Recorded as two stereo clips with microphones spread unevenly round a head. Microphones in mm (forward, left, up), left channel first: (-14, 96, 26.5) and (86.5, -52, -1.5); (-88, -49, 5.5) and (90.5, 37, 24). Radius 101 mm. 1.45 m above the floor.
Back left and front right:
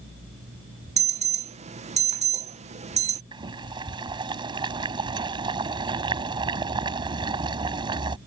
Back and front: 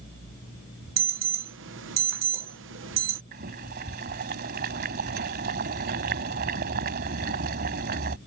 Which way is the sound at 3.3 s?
10° left.